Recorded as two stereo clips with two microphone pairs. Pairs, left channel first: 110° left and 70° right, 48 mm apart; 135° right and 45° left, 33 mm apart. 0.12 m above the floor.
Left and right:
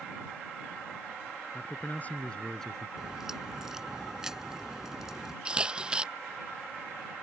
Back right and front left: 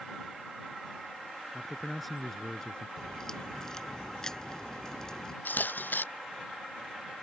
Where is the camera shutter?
140° right.